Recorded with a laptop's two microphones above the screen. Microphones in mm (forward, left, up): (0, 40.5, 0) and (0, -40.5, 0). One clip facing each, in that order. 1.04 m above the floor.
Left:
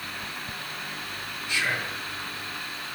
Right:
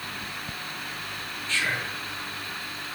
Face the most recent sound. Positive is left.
turn(degrees=15)  # may be behind; listen again after turning